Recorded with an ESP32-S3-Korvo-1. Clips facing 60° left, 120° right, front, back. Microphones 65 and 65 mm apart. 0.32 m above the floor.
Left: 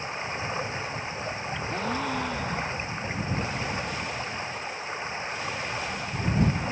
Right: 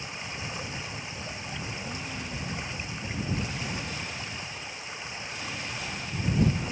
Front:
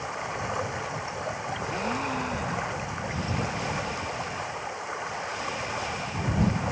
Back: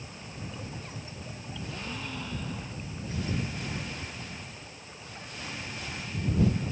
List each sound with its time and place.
0.0 s running water: straight ahead
1.7 s a gasp: 45° left